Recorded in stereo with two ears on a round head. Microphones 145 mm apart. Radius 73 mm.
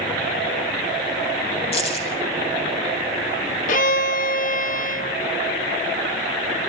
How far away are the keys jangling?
About 6.5 m.